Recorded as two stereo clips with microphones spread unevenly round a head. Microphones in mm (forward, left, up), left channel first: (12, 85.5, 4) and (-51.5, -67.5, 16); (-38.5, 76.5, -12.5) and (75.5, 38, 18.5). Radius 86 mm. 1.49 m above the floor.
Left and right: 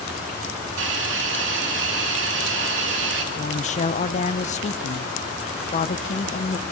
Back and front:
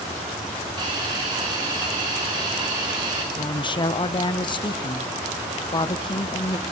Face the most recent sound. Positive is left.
turn(degrees=115)